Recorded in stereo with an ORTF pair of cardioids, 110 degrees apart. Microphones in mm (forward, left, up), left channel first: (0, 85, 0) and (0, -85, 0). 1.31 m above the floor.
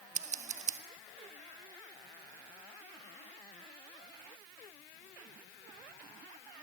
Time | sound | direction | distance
0.1 | scissors | 45° right | 1.6 m